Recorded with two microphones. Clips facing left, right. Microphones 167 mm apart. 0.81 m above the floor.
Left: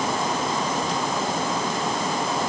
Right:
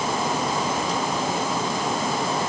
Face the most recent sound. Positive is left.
No sound to turn to.